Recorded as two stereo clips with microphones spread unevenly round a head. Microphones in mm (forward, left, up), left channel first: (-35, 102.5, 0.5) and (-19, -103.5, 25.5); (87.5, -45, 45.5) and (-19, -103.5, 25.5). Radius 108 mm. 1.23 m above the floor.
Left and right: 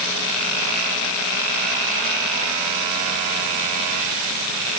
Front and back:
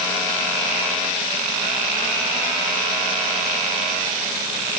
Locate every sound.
Only background noise.